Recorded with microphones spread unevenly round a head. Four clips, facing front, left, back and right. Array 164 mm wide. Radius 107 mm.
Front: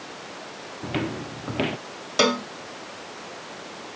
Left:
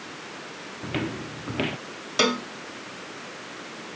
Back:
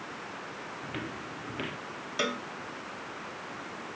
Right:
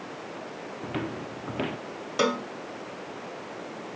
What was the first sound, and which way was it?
Footsteps, 25° right.